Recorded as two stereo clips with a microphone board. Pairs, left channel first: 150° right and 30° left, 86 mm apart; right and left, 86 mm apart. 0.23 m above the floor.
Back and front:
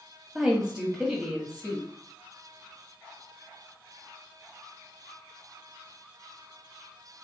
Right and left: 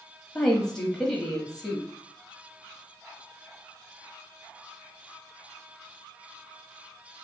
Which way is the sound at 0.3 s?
20° right.